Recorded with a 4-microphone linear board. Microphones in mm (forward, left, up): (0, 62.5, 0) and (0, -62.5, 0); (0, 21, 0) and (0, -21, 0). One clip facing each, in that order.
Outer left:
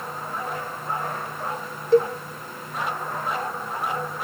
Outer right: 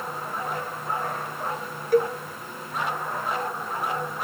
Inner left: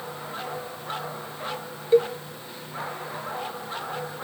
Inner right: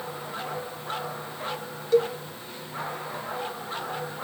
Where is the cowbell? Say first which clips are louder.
Outer left 3 dB, inner left 2 dB; 25° left (ahead or behind), 1.1 m.